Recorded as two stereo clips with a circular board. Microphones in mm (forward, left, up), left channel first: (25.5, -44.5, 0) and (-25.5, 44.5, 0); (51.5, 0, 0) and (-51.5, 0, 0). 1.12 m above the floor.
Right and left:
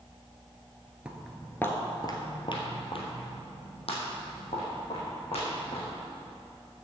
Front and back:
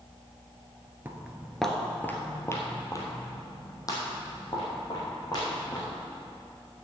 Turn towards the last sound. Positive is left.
turn(degrees=-50)